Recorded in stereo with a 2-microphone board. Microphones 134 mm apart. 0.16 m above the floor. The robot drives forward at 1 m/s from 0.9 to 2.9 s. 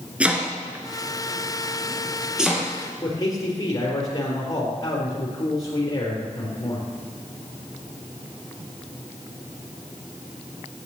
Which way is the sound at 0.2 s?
10° right (ahead or behind).